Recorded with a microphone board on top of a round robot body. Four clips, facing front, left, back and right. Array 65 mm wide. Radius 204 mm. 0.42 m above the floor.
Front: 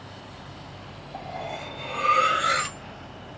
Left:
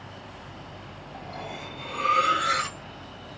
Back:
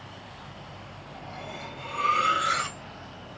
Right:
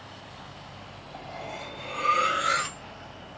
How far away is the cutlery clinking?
About 3 m.